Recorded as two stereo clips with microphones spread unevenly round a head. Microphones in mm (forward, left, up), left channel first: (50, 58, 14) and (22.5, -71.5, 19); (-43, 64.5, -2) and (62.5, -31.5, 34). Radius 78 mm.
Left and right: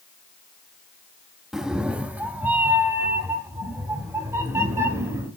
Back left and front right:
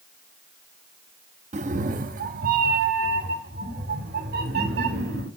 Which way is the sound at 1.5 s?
15° right.